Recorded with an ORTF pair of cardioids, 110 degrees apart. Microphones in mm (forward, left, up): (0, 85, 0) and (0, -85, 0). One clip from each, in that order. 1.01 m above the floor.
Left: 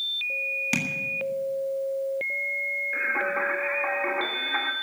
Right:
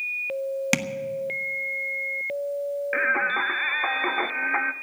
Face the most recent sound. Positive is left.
turn(degrees=-50)